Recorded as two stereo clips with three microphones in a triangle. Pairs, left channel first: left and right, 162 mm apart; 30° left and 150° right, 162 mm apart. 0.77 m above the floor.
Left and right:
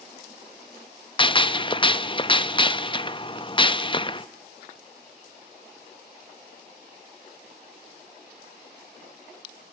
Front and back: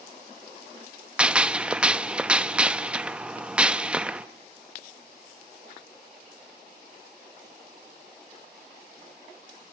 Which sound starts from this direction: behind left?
A gunshot, at 1.2 s.